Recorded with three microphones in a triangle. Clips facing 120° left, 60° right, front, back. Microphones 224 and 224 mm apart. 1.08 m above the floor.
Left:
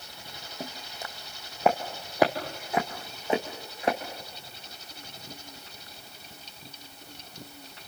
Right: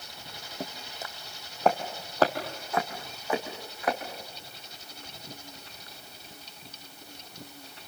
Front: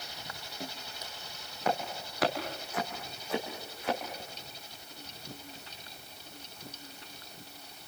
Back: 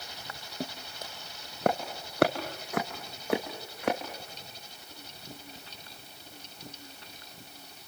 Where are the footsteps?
140° right, 2.5 m; by 4.0 s straight behind, 3.5 m.